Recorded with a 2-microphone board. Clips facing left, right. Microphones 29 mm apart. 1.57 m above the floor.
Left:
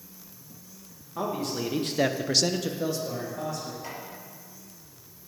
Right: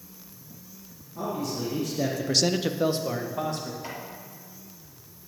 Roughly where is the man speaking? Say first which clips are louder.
Left 1 dB; left.